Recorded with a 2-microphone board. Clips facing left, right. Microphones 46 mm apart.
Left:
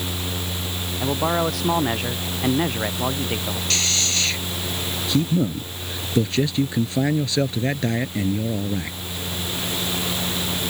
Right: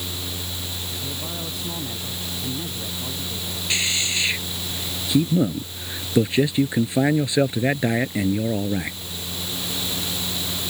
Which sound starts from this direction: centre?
A man speaking, at 3.7 s.